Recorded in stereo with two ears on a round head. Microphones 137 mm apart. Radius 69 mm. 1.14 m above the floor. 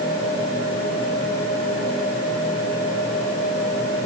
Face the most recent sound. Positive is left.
No sound to turn to.